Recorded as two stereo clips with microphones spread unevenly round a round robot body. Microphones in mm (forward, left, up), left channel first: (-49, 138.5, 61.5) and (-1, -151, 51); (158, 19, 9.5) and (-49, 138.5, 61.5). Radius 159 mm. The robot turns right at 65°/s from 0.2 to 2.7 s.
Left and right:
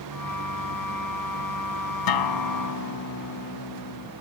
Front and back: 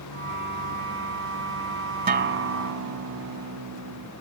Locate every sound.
2.1 s a guitar: 95° left; by 4.1 s 140° left